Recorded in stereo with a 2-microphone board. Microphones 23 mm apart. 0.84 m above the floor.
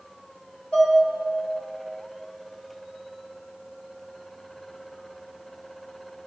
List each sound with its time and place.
0.7 s dishes clattering: 45° left (ahead or behind), 2.0 m